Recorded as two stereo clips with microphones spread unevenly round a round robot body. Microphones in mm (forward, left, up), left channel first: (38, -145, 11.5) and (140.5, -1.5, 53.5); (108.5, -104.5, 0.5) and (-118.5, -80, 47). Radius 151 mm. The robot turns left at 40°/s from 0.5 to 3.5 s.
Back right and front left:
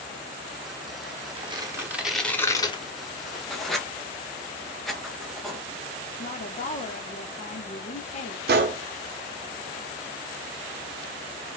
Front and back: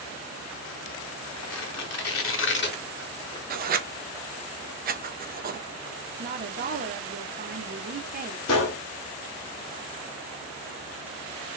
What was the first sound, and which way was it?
Tearing paper, straight ahead.